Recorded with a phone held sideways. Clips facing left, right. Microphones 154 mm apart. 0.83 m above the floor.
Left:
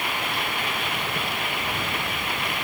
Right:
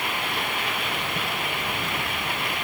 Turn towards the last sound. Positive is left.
No sound to turn to.